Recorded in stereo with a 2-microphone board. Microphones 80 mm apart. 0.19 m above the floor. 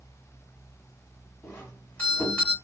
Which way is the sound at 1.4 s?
20° left (ahead or behind).